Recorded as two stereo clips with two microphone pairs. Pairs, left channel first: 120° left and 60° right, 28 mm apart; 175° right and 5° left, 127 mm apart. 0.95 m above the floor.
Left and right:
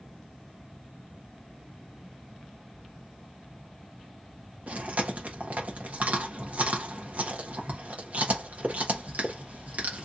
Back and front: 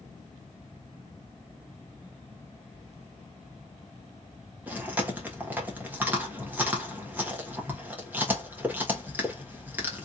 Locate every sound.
4.7 s chewing: 70° right, 1.3 m